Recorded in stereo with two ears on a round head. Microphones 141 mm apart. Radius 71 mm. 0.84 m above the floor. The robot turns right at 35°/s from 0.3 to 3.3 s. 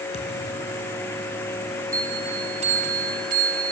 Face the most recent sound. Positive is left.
turn(degrees=-110)